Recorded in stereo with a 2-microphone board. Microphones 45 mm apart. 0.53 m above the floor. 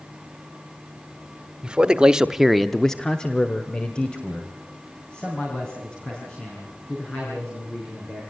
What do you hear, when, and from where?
1.6 s a man speaking: 20° right (ahead or behind), 1.6 m; by 8.2 s 20° left (ahead or behind), 8.5 m